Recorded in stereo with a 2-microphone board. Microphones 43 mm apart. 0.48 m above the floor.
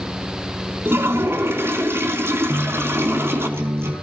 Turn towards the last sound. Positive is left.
turn(degrees=-70)  # may be behind; listen again after turning